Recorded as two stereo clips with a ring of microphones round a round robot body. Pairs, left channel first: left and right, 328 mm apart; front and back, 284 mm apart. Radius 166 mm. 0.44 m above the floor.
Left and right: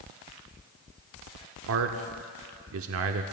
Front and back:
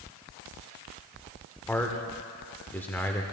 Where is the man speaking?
80° right, 0.9 m.